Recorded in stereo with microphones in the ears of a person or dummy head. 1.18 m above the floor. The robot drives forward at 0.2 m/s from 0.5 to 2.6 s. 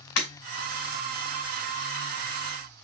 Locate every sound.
0.2 s breaking glass: 70° left (ahead or behind), 1.8 m